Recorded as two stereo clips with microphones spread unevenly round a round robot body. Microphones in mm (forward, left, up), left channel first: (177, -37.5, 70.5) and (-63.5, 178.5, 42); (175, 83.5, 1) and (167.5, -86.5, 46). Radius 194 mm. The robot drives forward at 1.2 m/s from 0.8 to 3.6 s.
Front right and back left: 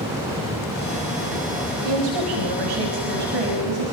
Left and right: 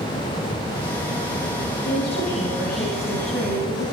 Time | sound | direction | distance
1.8 | a woman speaking | 135° left | 4.5 m